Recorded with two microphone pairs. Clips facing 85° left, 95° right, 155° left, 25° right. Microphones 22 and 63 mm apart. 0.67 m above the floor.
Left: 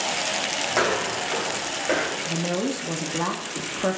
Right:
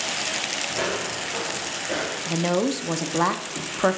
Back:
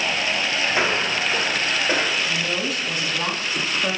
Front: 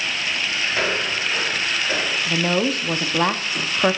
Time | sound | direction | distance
0.7 | footsteps | 85° left | 2.5 m
2.3 | a woman speaking | 40° right | 0.7 m